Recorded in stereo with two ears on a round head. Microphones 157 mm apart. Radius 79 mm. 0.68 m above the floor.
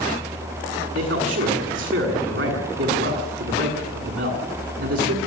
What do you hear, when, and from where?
0.9 s a man speaking: 80° right, 7.5 m